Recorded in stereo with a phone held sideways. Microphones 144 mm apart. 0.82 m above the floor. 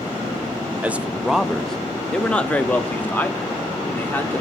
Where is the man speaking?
10° right (ahead or behind), 0.6 m; by 4.4 s 15° left (ahead or behind), 2 m.